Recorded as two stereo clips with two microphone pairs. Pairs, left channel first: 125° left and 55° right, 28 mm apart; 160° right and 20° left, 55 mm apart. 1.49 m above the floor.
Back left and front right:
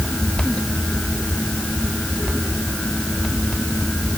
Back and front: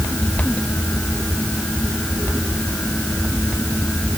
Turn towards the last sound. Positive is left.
No sound to turn to.